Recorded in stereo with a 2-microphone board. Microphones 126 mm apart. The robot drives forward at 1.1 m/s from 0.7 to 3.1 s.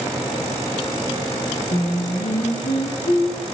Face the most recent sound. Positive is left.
turn(degrees=70)  # may be behind; listen again after turning